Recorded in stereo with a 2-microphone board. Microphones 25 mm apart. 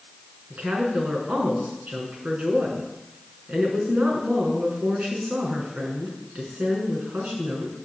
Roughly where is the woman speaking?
Right.